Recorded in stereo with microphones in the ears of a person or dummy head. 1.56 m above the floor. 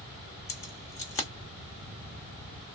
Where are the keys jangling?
15° left (ahead or behind), 1.0 m.